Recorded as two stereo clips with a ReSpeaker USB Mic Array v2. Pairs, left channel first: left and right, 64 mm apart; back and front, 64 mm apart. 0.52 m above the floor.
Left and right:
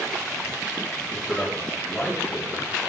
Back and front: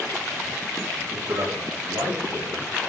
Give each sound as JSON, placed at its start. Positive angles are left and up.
{"t": 1.1, "sound": "a man speaking", "azimuth_deg": 10, "distance_m": 7.5}